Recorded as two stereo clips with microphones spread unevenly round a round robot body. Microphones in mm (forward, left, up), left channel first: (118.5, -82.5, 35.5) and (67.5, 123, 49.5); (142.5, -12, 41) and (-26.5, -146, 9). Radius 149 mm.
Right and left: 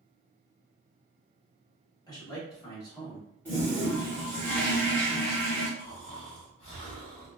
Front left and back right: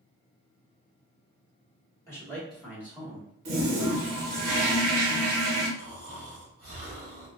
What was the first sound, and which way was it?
A man speaking, 40° right.